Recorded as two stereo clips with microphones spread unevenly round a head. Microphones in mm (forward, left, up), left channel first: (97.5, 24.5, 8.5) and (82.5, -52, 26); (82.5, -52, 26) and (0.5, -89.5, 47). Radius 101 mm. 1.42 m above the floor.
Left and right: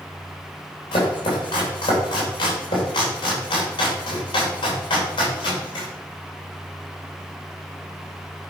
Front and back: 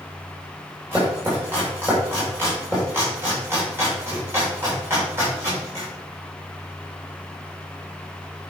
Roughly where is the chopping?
Behind left.